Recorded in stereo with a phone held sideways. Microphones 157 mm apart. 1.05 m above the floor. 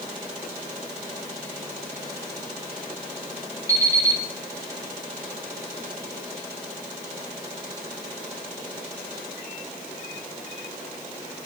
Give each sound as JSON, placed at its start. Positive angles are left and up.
{"t": 3.7, "sound": "an alarm clock", "side_deg": -20, "distance_m": 3.5}